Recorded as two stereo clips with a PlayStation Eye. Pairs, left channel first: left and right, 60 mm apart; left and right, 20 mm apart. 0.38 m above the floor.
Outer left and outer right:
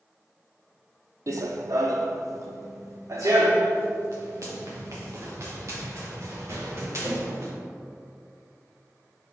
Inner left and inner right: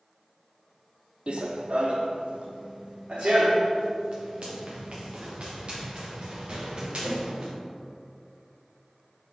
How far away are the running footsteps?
About 0.6 m.